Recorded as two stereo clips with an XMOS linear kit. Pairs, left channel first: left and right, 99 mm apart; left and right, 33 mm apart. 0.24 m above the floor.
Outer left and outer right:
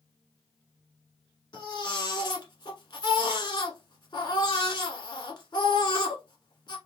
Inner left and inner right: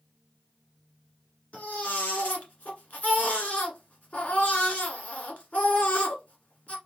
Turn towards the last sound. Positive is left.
turn(degrees=50)  # may be behind; listen again after turning